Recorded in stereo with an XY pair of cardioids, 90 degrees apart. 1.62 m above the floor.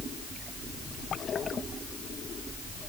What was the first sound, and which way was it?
Only background noise.